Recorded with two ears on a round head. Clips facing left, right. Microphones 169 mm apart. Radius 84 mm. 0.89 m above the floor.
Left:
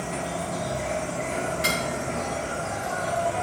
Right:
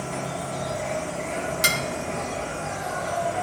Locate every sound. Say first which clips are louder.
0.0 s an insect: even; centre (ahead or behind), 1.1 m
1.6 s dishes clattering: left 1 dB; 55° right (ahead or behind), 0.8 m